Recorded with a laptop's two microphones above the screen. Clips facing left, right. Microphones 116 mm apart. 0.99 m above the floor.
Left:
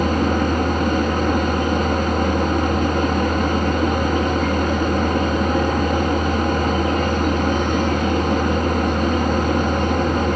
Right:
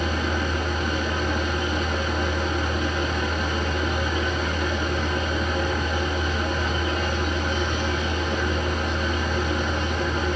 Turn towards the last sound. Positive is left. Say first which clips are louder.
# left 8 dB
turn(degrees=55)  # may be behind; listen again after turning